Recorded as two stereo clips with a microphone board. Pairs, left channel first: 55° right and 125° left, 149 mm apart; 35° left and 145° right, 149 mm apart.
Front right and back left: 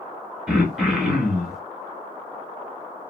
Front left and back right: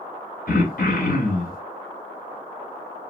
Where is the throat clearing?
40° left, 0.8 m.